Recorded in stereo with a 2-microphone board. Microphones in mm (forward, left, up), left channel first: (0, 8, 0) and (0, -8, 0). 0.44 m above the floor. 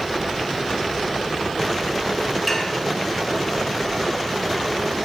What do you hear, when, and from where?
2.5 s dishes clattering: 5° left (ahead or behind), 3.5 m